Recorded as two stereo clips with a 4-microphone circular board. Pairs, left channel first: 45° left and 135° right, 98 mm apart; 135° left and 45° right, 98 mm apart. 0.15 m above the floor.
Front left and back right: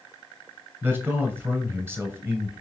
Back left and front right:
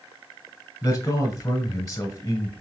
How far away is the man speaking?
About 2 m.